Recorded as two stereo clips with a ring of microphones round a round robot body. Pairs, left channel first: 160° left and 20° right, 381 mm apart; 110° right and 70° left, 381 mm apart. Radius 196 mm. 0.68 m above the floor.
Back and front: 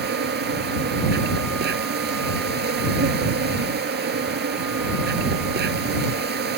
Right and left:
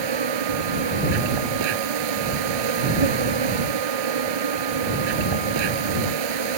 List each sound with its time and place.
0.0 s an insect: 45° left